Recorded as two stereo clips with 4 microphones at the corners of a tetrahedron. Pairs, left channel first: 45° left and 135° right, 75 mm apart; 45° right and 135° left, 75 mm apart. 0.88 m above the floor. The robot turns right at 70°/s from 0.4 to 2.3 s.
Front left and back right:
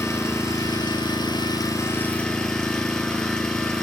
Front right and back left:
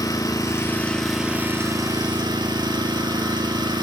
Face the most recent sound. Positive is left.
turn(degrees=125)